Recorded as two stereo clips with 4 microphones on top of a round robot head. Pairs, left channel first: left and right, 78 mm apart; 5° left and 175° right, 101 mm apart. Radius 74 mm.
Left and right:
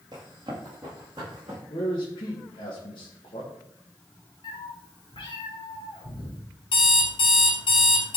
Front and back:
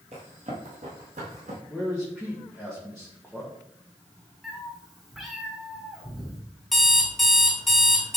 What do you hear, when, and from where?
0.1 s running footsteps: 145° right, 1.8 m; by 1.6 s 150° right, 3.5 m
1.7 s a man speaking: 95° left, 1.7 m
4.4 s a cat meowing: 95° left, 1.3 m
6.7 s an alarm clock: 90° left, 3 m